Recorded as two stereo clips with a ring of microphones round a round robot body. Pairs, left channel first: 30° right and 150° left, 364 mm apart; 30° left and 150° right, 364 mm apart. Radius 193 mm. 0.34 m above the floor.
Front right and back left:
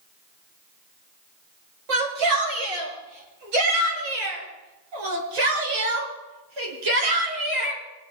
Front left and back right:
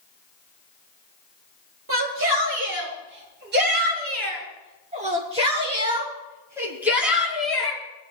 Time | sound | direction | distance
1.9 | a shout | 155° left | 7 m